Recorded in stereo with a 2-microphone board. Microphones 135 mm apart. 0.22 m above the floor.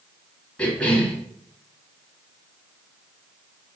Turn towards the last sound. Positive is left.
turn(degrees=10)  # may be behind; listen again after turning